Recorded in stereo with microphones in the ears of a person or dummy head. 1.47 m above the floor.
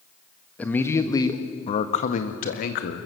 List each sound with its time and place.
0.6 s a man speaking: 5° left (ahead or behind), 1.5 m; by 3.1 s 60° left (ahead or behind), 1.9 m